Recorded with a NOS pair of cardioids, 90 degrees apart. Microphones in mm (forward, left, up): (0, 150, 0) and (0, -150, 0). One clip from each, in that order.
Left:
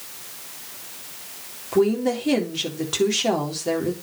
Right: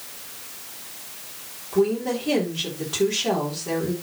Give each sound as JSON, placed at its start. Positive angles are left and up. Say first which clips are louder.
{"t": 1.7, "sound": "a woman speaking", "louder": "left 2 dB", "azimuth_deg": 55, "distance_m": 3.5}